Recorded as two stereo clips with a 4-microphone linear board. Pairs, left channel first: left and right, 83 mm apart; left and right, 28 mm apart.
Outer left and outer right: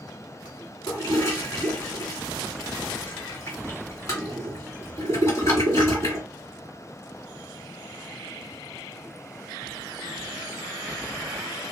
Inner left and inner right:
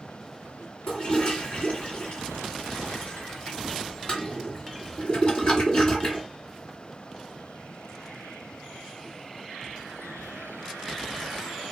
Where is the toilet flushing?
35° left (ahead or behind), 1.6 m.